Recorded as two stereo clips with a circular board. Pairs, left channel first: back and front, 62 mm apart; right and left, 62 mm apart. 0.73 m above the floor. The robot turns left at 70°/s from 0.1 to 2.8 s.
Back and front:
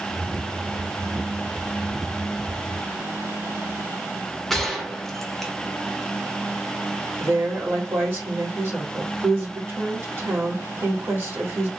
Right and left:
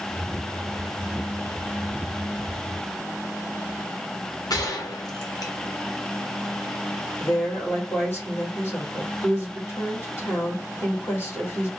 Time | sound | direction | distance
4.5 | a gunshot | 95° right | 0.8 m
7.2 | a woman speaking | 45° right | 2 m